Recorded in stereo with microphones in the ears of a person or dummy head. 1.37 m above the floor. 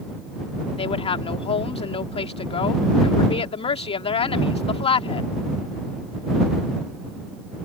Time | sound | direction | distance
0.8 | a woman speaking | 30° left (ahead or behind) | ?